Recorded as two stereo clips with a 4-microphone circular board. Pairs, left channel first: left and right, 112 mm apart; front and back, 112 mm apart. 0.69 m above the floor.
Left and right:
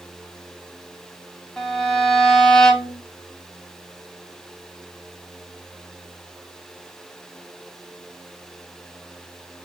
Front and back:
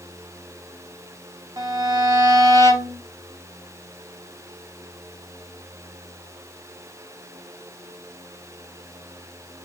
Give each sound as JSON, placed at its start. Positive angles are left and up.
{"t": 1.6, "sound": "a violin", "azimuth_deg": 170, "distance_m": 0.7}